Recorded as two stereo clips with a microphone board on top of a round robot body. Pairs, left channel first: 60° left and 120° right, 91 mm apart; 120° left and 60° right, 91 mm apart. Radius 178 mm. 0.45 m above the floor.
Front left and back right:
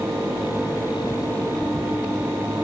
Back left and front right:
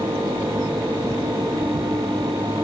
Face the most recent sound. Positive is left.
No sound to turn to.